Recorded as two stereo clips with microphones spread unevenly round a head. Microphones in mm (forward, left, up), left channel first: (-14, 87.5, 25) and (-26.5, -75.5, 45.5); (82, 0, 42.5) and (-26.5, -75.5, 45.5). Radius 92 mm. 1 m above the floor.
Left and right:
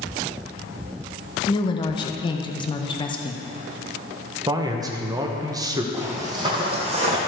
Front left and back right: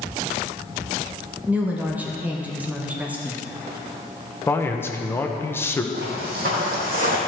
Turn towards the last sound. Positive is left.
turn(degrees=-130)